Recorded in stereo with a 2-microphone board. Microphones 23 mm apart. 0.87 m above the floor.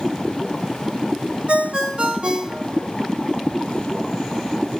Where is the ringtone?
50° right (ahead or behind), 0.5 m.